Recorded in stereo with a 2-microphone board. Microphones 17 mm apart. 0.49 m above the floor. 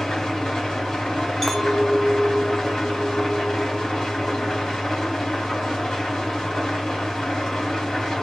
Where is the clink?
15° left (ahead or behind), 0.7 m.